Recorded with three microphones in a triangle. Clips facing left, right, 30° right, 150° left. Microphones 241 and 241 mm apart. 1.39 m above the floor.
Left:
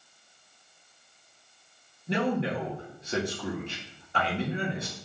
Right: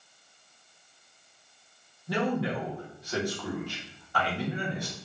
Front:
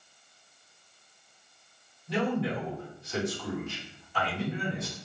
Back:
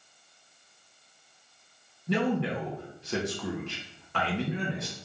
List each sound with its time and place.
2.1 s a man speaking: 155° left, 1.5 m